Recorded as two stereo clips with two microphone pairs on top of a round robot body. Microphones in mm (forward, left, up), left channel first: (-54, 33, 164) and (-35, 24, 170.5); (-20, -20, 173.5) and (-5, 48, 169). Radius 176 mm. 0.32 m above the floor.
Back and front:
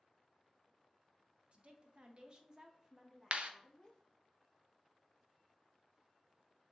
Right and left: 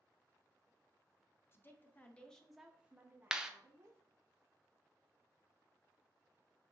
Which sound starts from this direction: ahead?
A clap, at 3.3 s.